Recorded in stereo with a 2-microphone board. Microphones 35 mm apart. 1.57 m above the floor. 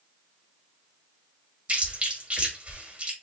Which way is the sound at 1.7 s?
35° right (ahead or behind).